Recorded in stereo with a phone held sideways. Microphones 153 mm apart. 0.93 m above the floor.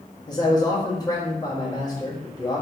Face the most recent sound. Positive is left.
turn(degrees=25)  # may be behind; listen again after turning